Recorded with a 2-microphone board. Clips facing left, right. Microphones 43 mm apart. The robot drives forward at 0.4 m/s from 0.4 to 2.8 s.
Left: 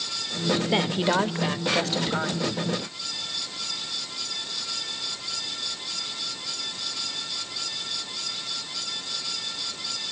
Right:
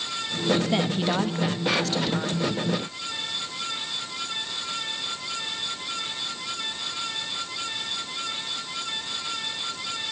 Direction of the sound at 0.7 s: 10° left (ahead or behind).